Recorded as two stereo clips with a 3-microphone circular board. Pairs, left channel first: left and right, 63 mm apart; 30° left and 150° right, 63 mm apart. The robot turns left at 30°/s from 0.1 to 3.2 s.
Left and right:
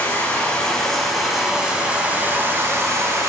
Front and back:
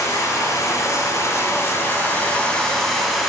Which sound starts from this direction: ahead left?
Running water, at 0.0 s.